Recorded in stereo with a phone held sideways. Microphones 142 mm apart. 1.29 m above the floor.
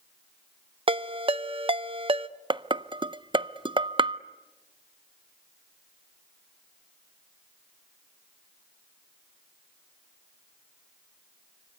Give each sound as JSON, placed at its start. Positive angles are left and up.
{"t": 0.9, "sound": "a ringtone", "side_deg": -40, "distance_m": 0.6}
{"t": 2.5, "sound": "dishes clattering", "side_deg": -40, "distance_m": 0.5}